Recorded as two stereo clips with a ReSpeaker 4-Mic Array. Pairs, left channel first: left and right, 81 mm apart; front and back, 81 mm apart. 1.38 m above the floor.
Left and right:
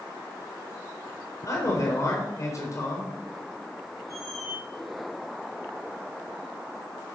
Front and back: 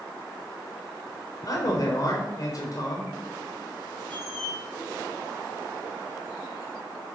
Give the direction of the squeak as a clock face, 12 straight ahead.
12 o'clock.